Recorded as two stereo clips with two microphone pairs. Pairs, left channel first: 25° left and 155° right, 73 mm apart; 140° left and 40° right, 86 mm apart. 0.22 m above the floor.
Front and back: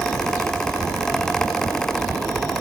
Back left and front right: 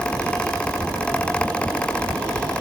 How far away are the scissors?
I don't hear scissors.